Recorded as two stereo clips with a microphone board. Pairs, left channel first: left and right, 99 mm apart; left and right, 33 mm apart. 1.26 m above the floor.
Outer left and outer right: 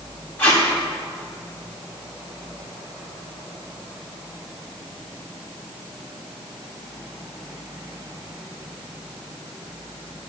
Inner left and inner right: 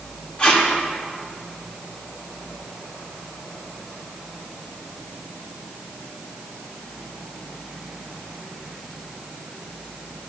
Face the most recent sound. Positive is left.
turn(degrees=20)  # may be behind; listen again after turning